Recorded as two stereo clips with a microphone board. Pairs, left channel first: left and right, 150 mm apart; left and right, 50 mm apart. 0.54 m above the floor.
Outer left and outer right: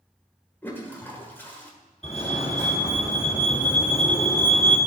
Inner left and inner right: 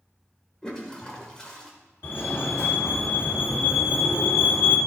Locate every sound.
0.6 s a toilet flushing: 15° left (ahead or behind), 1.4 m
2.0 s a fire alarm: 45° left (ahead or behind), 2 m